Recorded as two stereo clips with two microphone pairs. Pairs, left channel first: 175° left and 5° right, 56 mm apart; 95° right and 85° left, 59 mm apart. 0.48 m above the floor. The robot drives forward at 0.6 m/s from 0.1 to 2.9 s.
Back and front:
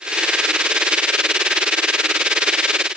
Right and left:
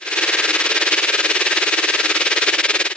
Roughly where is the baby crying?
I don't hear a baby crying.